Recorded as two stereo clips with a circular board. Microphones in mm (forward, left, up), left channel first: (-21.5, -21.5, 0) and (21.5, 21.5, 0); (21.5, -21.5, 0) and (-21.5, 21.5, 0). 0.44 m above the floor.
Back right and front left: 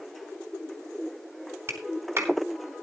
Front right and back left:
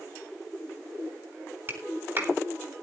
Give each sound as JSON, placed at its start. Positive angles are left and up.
{"t": 1.7, "sound": "a clap", "azimuth_deg": 90, "distance_m": 3.5}